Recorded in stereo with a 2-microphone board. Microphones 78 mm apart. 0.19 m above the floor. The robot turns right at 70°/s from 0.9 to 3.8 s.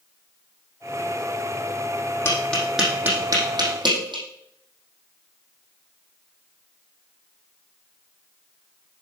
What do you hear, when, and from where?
2.2 s tapping: 30° left (ahead or behind), 4.5 m; by 4.2 s 75° right (ahead or behind), 4.5 m